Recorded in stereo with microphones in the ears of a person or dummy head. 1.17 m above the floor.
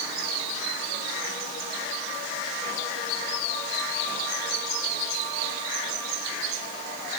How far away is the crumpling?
No crumpling in this recording.